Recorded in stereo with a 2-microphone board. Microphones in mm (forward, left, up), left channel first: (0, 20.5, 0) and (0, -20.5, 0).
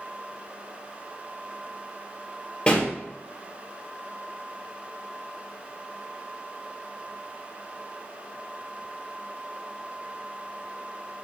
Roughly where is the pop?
Left.